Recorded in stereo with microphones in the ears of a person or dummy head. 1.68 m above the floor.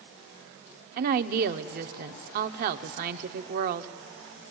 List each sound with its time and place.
1.0 s a woman speaking: 50° right (ahead or behind), 0.7 m